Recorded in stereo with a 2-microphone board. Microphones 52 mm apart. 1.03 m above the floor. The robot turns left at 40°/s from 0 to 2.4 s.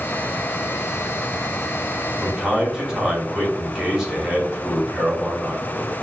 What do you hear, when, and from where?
2.2 s a man speaking: centre (ahead or behind), 1.9 m; by 5.9 s 10° right (ahead or behind), 1.9 m